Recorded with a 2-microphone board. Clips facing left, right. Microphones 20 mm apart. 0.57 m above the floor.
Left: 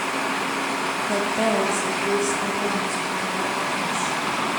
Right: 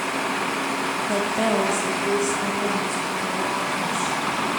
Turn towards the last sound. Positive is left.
turn(degrees=0)  # may be behind; listen again after turning